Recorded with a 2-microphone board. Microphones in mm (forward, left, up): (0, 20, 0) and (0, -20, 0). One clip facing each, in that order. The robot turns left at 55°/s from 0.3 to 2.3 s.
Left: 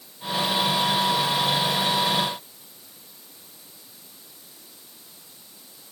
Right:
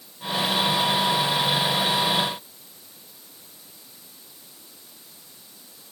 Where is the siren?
No siren in this recording.